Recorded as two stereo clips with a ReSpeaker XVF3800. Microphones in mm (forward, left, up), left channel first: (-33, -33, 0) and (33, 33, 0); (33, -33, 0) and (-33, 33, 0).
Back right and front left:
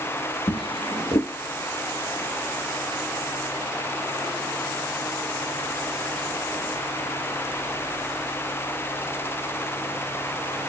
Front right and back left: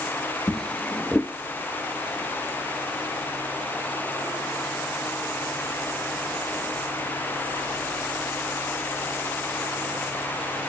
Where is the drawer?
125° right, 0.7 m.